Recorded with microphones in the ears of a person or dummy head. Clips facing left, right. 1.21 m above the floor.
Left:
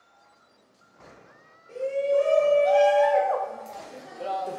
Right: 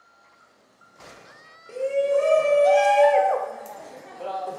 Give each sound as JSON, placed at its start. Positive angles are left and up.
{"t": 1.7, "sound": "a shout", "side_deg": -70, "distance_m": 1.2}